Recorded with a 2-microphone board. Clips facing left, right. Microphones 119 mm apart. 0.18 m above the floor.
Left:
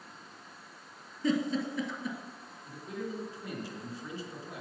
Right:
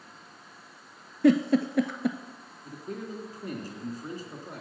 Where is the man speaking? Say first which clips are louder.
Right 1 dB; 45° right (ahead or behind), 2.5 m.